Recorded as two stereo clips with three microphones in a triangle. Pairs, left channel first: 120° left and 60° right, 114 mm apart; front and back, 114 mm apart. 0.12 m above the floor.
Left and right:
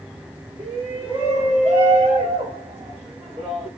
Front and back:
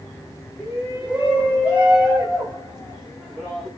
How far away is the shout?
About 8.5 m.